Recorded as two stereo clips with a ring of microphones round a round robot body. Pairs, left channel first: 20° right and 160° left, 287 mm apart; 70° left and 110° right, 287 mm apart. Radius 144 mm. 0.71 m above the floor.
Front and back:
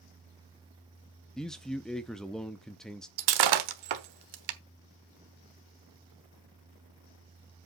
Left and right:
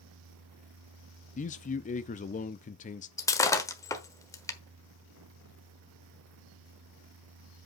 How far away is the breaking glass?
About 1.2 m.